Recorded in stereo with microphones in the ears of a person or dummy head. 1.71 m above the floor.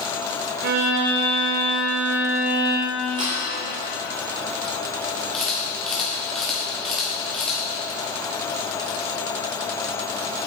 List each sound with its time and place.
0.6 s a violin: 50° right (ahead or behind), 0.9 m
3.1 s a thud: 20° right (ahead or behind), 1.5 m
5.3 s a camera shutter: centre (ahead or behind), 2.5 m